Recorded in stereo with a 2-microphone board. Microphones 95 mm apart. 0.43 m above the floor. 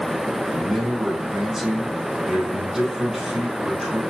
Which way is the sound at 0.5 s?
5° right (ahead or behind).